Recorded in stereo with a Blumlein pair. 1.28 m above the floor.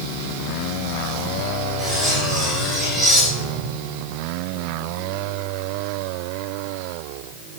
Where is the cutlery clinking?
Straight ahead, 4 m.